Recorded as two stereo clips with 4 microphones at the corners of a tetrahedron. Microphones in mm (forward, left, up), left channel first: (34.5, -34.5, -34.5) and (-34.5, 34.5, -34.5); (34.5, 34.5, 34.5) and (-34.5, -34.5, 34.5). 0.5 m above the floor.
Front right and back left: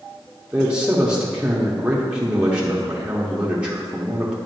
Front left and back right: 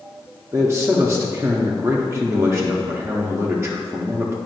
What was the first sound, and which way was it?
A man speaking, 160° right.